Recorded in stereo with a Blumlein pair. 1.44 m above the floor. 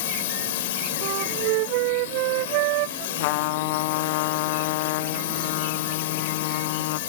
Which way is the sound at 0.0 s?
55° left.